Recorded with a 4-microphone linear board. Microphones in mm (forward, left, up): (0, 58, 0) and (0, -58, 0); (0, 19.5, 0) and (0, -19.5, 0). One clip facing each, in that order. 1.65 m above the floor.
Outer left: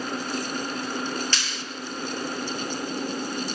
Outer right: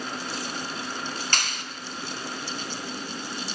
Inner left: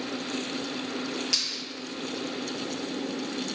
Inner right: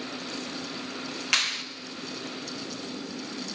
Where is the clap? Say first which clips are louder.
Outer right 1 dB, inner right 6 dB; 55° right (ahead or behind), 2.0 m.